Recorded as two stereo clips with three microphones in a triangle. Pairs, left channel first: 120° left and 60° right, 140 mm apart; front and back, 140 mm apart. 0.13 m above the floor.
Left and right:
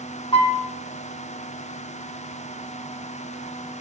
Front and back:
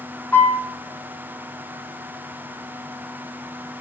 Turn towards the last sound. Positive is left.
turn(degrees=75)